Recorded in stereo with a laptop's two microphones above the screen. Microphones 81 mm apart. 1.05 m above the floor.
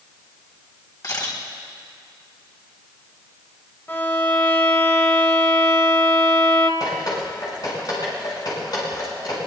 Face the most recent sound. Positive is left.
turn(degrees=55)  # may be behind; listen again after turning